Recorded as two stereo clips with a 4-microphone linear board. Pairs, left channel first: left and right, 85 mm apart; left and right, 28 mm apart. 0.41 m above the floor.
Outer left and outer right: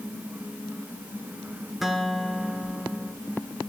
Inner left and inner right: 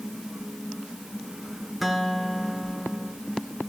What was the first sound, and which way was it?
A guitar, 5° right (ahead or behind).